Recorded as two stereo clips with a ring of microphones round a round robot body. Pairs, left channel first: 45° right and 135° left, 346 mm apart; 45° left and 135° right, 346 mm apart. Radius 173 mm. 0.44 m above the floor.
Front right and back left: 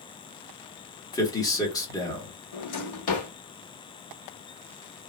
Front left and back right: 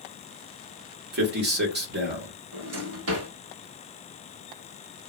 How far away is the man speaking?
About 1.0 m.